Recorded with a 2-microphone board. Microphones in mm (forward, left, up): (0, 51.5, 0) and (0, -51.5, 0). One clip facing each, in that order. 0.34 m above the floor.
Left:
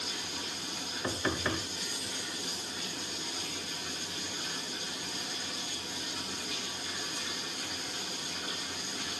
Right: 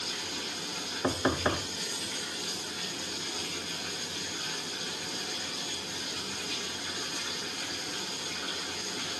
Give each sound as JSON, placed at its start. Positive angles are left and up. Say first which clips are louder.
{"t": 0.0, "sound": "running water", "louder": "right 2 dB", "side_deg": -80, "distance_m": 4.0}
{"t": 1.0, "sound": "knocking", "louder": "right 5 dB", "side_deg": -35, "distance_m": 0.7}